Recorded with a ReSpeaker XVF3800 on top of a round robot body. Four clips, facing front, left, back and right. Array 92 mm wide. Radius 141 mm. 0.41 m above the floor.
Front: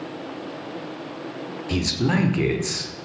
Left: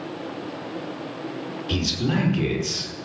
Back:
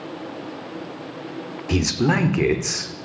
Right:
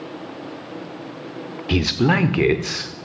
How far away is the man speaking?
About 1.4 m.